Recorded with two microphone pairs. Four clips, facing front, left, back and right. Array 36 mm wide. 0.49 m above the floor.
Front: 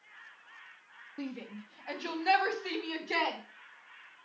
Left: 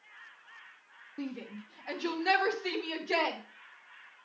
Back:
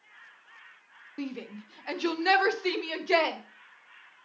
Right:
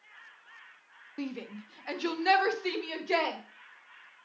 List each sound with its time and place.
1.2 s a shout: 130° right, 0.8 m; by 3.4 s 170° right, 1.7 m